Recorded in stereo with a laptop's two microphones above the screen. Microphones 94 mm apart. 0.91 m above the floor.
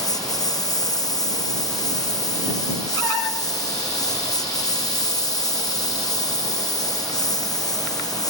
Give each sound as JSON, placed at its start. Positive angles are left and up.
{"t": 0.0, "sound": "a lawn mower", "side_deg": 40}